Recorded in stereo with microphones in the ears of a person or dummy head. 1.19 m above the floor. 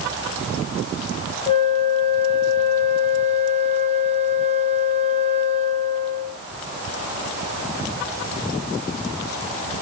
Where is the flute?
35° left (ahead or behind), 1.6 m.